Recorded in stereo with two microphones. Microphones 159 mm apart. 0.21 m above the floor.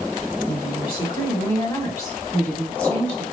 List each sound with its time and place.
0.5 s a woman speaking: 35° left (ahead or behind), 1.7 m; by 3.2 s 5° left (ahead or behind), 1.7 m